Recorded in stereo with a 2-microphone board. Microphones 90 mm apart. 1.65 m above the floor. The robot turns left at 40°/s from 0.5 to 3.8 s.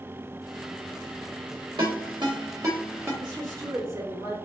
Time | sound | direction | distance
1.8 | a ringtone | 60° right (ahead or behind) | 1.4 m
3.2 | a woman speaking | 50° right (ahead or behind) | 2.0 m